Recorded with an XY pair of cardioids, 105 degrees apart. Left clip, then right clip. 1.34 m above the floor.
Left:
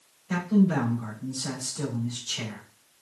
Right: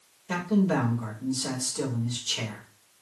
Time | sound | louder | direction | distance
0.3 | a man speaking | even | 70° right | 2 m